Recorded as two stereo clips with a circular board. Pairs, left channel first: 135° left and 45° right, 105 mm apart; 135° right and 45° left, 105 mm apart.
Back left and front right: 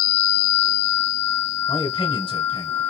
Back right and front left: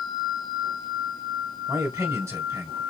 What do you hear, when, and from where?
1.7 s a man speaking: 105° left, 2.5 m